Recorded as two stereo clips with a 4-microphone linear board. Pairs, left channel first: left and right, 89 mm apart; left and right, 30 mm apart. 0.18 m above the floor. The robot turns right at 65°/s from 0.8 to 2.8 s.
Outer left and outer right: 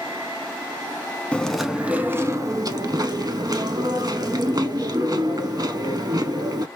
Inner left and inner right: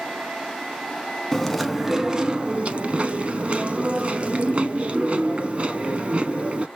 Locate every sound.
1.3 s chewing: 165° left, 0.5 m; by 6.7 s 100° right, 0.5 m